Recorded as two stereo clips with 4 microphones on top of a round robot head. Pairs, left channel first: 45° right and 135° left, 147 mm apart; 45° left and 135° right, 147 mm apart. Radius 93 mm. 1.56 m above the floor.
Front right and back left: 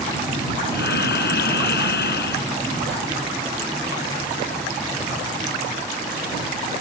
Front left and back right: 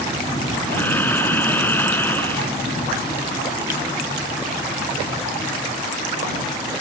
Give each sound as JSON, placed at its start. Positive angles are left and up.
{"t": 0.7, "sound": "breathing", "azimuth_deg": -30}